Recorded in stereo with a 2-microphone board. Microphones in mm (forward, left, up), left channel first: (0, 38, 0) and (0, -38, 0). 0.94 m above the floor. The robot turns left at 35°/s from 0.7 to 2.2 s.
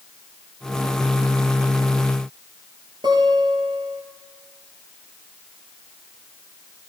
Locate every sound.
3.0 s a guitar: 75° right (ahead or behind), 4.5 m